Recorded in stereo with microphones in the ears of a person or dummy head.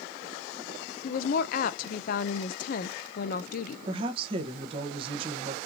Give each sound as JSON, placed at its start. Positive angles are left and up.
{"t": 1.0, "sound": "a woman speaking", "side_deg": 45, "distance_m": 0.5}
{"t": 3.9, "sound": "a woman speaking", "side_deg": -35, "distance_m": 1.0}